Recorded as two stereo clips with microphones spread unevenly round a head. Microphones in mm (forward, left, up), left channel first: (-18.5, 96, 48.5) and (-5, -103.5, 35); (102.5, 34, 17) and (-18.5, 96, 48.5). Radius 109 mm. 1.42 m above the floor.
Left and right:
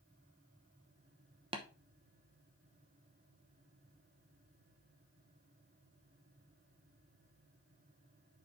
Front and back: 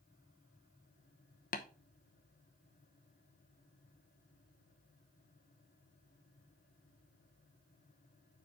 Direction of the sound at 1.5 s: 20° right.